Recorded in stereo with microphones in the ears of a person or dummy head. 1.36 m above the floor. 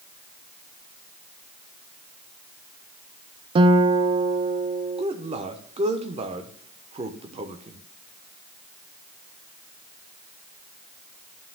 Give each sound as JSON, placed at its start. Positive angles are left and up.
{"t": 3.5, "sound": "a guitar", "side_deg": -30, "distance_m": 0.5}
{"t": 5.0, "sound": "a man speaking", "side_deg": -30, "distance_m": 1.0}